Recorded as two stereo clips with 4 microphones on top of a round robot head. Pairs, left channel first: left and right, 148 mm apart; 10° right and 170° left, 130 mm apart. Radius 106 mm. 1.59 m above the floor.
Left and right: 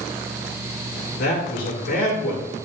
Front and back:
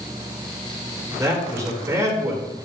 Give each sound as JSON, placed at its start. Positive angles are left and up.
{"t": 1.2, "sound": "a man speaking", "azimuth_deg": 105, "distance_m": 4.5}